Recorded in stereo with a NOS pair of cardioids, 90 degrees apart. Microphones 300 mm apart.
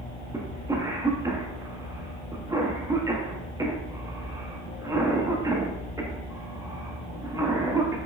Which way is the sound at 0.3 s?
10° right.